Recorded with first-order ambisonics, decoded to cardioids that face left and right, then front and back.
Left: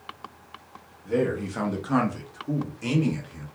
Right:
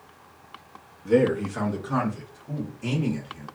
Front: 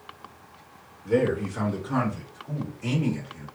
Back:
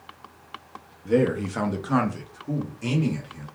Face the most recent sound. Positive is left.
turn(degrees=125)